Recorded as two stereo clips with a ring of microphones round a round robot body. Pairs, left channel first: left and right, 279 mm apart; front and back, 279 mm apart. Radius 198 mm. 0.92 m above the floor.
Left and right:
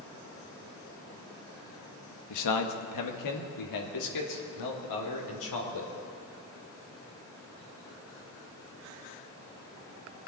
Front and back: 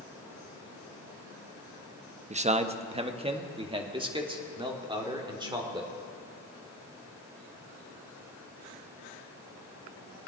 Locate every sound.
2.3 s a man speaking: 110° left, 0.9 m; by 5.9 s 105° left, 3 m